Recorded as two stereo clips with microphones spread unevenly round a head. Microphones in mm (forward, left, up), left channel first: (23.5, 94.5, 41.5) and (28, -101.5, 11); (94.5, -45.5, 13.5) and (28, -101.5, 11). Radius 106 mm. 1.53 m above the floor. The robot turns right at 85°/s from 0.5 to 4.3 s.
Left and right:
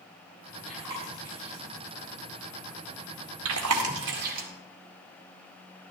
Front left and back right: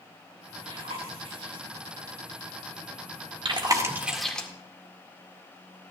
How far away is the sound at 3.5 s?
About 2.0 m.